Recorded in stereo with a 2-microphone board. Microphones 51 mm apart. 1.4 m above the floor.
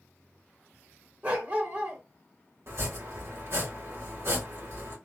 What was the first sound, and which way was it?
A dog barking, 30° right (ahead or behind).